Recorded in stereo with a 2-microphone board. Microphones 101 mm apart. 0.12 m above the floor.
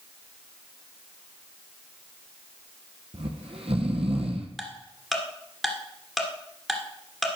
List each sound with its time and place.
3.1 s snoring: 70° right (ahead or behind), 1.2 m
4.6 s ticking: centre (ahead or behind), 1.5 m